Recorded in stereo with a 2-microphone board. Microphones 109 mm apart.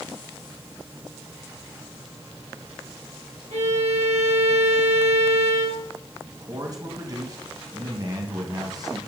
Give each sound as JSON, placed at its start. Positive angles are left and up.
{"t": 3.5, "sound": "a violin", "side_deg": -70, "distance_m": 2.5}
{"t": 6.3, "sound": "a man speaking", "side_deg": -35, "distance_m": 2.5}